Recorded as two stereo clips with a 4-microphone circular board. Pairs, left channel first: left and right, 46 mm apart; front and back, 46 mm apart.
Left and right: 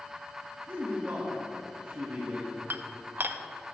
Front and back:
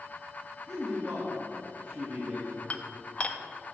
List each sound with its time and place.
0.7 s a man speaking: 115° right, 1.5 m
2.7 s dishes clattering: 55° right, 0.5 m